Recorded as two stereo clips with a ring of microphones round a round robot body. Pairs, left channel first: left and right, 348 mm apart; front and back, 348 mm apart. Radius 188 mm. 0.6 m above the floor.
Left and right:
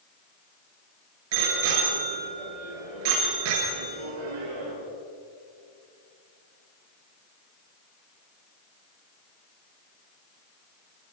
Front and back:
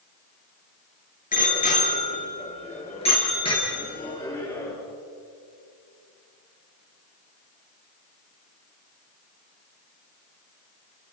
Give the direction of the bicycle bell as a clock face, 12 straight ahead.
2 o'clock.